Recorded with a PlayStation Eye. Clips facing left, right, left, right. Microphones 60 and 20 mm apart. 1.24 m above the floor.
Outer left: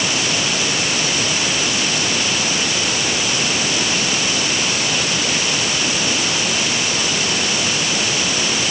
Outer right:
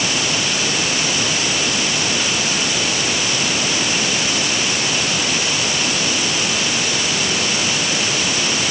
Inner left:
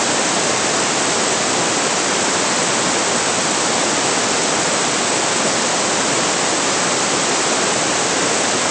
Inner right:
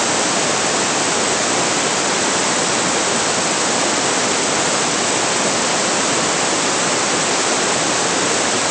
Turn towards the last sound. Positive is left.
No sound to turn to.